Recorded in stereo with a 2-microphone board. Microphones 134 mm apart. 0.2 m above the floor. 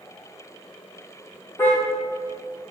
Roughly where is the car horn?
Centre.